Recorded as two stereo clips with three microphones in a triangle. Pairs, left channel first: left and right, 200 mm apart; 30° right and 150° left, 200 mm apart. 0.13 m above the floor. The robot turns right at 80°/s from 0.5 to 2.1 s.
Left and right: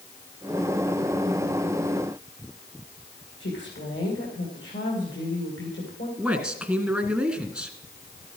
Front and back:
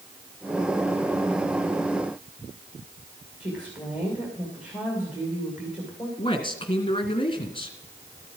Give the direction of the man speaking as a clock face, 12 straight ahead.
12 o'clock.